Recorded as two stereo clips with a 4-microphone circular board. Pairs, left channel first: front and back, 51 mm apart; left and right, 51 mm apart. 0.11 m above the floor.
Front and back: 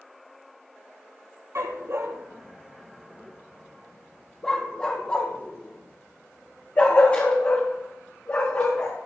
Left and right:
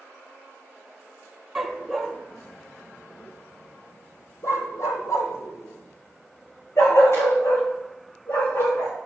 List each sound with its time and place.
1.6 s a dog barking: 175° right, 1.3 m; by 9.0 s 55° left, 4 m